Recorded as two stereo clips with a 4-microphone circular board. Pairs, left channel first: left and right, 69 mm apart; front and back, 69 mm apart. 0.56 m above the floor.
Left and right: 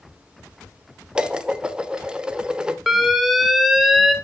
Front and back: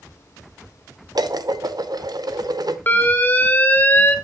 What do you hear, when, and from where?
1.1 s dishes clattering: 165° right, 0.9 m
2.9 s an alarm: 5° right, 1.3 m